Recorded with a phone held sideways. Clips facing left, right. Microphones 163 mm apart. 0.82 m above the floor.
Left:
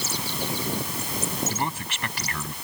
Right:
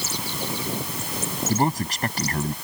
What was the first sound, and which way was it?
A man speaking, 40° right (ahead or behind).